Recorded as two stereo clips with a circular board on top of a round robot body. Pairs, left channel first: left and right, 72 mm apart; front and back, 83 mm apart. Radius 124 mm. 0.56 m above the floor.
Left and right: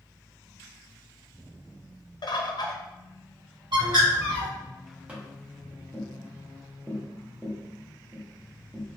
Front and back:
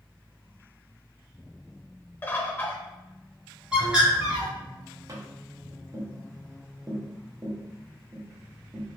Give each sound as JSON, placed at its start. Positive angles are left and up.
{"t": 2.2, "sound": "a bird", "azimuth_deg": 70, "distance_m": 0.6}
{"t": 3.7, "sound": "a bird", "azimuth_deg": -100, "distance_m": 1.3}
{"t": 5.1, "sound": "tapping", "azimuth_deg": -155, "distance_m": 1.1}